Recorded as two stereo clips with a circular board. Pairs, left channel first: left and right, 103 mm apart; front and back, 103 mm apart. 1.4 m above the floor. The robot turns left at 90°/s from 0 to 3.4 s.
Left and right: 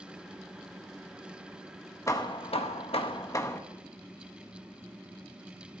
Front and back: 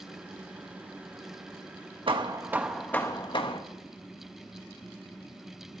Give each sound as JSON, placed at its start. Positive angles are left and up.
{"t": 2.1, "sound": "hammering", "azimuth_deg": 150, "distance_m": 1.4}